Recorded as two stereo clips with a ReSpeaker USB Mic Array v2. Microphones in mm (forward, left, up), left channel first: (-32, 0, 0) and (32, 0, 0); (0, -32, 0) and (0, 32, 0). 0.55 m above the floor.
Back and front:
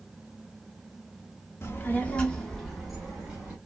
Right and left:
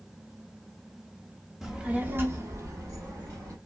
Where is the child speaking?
170° left, 0.9 m; by 3.6 s 75° left, 1.8 m.